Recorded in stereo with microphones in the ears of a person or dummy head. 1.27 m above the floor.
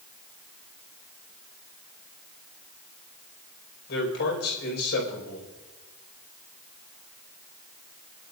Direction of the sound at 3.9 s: 65° left (ahead or behind).